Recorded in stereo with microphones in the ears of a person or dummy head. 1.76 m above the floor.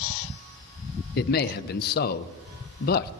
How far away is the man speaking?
About 0.7 m.